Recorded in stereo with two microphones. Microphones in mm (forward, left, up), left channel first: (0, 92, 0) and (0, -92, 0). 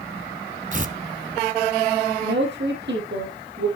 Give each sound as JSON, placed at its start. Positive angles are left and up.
{"t": 0.7, "sound": "tearing paper", "side_deg": -45, "distance_m": 1.0}
{"t": 2.2, "sound": "a woman speaking", "side_deg": -75, "distance_m": 6.0}